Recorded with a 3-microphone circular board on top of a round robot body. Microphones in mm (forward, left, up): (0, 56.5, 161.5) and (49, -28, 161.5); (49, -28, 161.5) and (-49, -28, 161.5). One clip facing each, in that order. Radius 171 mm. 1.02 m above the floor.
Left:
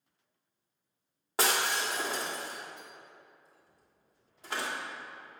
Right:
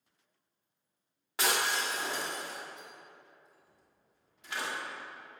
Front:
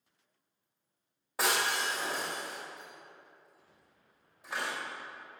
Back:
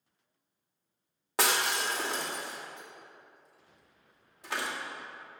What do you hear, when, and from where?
1.4 s breaking glass: 175° left, 2 m